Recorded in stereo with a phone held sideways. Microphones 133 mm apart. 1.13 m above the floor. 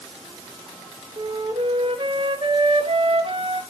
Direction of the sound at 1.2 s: 45° right (ahead or behind).